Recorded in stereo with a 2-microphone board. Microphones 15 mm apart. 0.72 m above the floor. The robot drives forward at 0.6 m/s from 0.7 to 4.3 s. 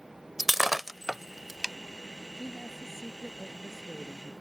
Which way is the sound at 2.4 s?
20° right (ahead or behind).